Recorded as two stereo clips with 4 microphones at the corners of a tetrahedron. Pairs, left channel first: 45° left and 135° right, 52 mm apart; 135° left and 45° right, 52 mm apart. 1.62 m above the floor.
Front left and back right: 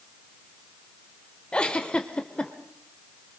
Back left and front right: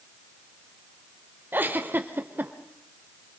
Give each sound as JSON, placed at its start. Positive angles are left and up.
{"t": 1.5, "sound": "a giggle", "azimuth_deg": -20, "distance_m": 1.7}